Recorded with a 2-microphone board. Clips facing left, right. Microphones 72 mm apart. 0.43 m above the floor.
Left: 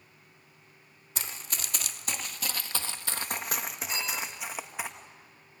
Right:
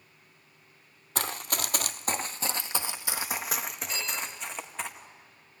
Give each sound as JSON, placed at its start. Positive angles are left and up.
{"t": 1.1, "sound": "running footsteps", "side_deg": -65, "distance_m": 0.9}
{"t": 3.9, "sound": "a phone ringing", "side_deg": 30, "distance_m": 2.5}